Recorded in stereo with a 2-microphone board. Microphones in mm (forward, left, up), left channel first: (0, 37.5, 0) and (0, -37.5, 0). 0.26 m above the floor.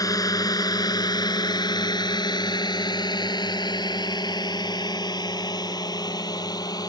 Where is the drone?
55° left (ahead or behind); by 6.9 s 60° left (ahead or behind).